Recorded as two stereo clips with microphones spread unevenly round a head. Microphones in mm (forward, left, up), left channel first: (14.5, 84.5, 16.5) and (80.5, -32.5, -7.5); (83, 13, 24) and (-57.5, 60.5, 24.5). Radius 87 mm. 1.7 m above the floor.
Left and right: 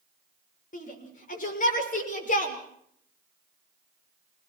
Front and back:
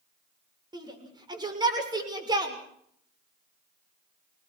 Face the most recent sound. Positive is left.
turn(degrees=100)